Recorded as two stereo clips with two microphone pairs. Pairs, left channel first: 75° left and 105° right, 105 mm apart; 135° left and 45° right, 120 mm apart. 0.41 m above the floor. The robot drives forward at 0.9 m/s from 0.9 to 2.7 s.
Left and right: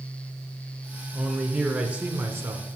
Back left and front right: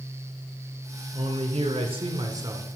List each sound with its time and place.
1.1 s a man speaking: 15° right, 1.6 m; by 2.8 s 100° right, 0.9 m